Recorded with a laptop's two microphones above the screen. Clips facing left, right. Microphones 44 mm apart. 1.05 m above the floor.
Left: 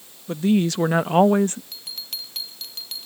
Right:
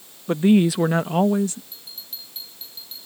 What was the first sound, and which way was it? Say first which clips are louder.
A woman speaking: right 3 dB; 35° right (ahead or behind).